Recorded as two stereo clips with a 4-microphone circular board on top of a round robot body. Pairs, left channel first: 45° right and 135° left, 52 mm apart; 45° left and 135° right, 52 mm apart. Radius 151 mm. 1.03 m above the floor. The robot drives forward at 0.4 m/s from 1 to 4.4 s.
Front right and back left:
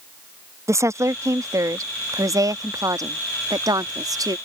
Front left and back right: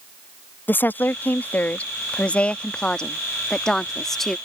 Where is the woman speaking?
105° left; by 4.4 s 130° left.